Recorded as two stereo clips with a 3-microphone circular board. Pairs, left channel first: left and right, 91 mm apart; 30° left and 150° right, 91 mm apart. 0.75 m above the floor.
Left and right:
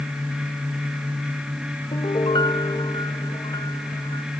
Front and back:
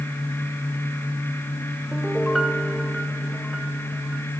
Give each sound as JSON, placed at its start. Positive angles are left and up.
{"t": 1.9, "sound": "a piano", "azimuth_deg": 120, "distance_m": 0.9}